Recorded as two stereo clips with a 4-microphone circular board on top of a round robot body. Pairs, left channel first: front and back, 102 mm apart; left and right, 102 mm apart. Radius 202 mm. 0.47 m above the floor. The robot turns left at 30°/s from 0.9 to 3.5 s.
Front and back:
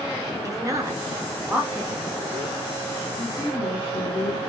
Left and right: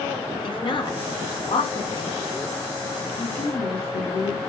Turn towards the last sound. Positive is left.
turn(degrees=65)